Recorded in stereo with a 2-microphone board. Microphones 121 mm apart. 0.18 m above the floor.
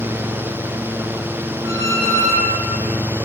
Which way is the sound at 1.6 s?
25° right (ahead or behind).